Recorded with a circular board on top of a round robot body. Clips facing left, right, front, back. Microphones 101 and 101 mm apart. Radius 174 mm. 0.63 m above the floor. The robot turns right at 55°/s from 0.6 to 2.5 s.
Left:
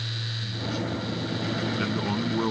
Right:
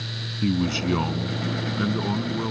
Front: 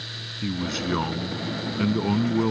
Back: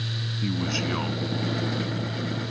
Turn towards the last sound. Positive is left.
turn(degrees=15)